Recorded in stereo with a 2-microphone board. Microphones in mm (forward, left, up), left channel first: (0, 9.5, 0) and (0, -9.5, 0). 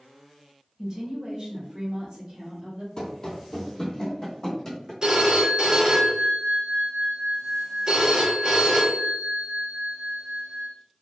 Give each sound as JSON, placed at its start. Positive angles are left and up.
{"t": 0.8, "sound": "a woman speaking", "side_deg": -30, "distance_m": 1.1}
{"t": 3.0, "sound": "running footsteps", "side_deg": 35, "distance_m": 1.0}
{"t": 5.0, "sound": "a phone ringing", "side_deg": -35, "distance_m": 1.1}